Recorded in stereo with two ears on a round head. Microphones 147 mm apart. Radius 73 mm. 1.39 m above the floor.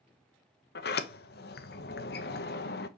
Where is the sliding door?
65° left (ahead or behind), 1.0 m.